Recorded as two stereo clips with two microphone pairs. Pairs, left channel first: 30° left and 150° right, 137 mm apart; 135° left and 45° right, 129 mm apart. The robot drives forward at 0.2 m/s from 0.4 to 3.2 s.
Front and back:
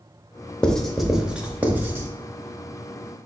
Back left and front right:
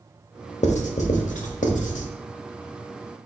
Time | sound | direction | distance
0.6 | writing | 115° left | 0.6 m